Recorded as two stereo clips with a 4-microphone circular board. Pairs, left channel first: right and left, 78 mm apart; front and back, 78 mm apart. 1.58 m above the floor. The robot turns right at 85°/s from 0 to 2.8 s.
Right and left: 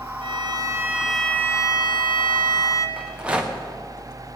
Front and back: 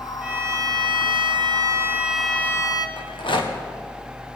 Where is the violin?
100° left, 1.2 m; by 2.9 s 40° right, 1.2 m.